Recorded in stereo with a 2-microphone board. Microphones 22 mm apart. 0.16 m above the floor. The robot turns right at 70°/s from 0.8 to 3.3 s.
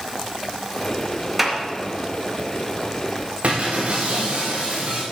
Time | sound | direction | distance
1.4 | a clap | 10° right (ahead or behind) | 2 m
3.4 | breaking glass | 70° right (ahead or behind) | 5 m